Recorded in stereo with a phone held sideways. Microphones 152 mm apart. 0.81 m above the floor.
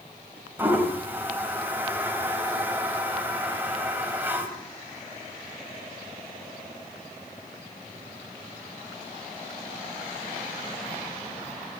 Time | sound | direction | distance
0.6 | a toilet flushing | 10° right (ahead or behind) | 4 m